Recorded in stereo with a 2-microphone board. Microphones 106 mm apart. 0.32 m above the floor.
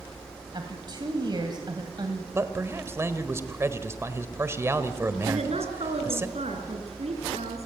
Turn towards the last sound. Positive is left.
turn(degrees=-75)  # may be behind; listen again after turning